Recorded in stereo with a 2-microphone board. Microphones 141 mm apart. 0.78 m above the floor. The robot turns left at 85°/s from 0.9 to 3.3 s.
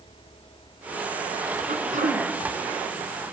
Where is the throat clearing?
90° right, 2 m; by 2.3 s 135° right, 2 m.